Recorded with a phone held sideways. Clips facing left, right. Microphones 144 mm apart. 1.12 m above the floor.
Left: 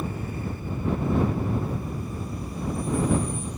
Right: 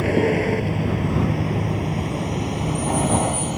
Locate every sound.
0.0 s a vehicle: 85° right; by 3.6 s 80° right